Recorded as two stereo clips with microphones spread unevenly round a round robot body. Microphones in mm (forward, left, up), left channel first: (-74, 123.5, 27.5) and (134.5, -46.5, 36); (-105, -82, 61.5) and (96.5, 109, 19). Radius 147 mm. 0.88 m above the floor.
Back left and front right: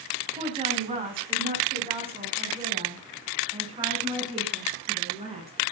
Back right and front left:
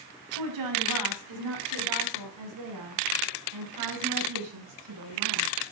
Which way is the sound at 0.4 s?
30° left.